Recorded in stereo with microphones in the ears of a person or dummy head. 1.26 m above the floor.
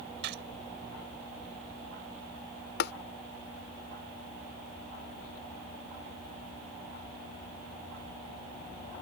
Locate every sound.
0.2 s a gunshot: 65° right (ahead or behind)
2.8 s tapping: 65° left (ahead or behind)